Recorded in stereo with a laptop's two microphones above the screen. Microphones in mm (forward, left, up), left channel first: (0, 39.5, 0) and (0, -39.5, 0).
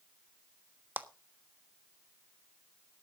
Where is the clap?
20° right (ahead or behind), 1.3 m.